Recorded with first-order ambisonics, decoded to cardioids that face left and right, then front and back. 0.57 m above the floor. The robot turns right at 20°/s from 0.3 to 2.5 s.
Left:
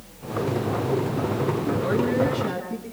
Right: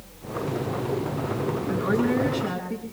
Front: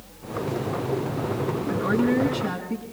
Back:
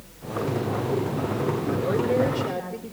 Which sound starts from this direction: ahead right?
A woman speaking, at 1.7 s.